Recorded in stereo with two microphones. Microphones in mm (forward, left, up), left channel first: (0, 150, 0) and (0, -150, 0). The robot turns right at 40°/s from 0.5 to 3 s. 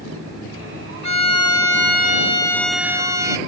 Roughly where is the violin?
Left.